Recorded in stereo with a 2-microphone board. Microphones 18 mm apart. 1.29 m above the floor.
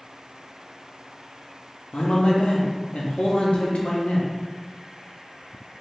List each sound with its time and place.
1.9 s a man speaking: 80° left, 0.6 m